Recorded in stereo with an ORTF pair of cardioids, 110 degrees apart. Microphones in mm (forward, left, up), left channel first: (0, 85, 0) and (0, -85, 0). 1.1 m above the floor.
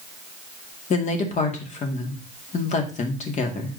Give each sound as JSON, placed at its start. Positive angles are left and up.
{"t": 0.9, "sound": "a woman speaking", "azimuth_deg": 45, "distance_m": 2.0}